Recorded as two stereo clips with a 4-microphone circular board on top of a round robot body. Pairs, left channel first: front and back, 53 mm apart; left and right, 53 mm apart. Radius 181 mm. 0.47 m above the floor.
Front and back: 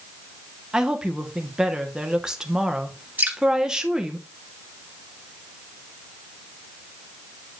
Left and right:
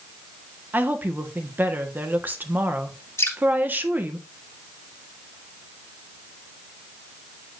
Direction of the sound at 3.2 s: 125° left.